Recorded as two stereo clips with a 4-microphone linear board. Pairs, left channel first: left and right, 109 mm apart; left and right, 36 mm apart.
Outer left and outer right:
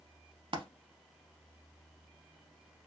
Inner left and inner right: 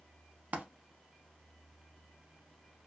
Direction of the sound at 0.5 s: 50° right (ahead or behind).